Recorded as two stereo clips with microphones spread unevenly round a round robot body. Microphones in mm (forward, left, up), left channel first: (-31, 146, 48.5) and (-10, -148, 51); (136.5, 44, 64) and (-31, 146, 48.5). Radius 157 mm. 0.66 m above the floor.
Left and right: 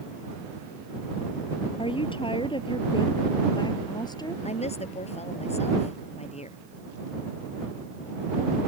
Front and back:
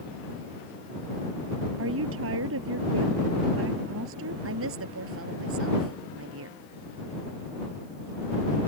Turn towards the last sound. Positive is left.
turn(degrees=165)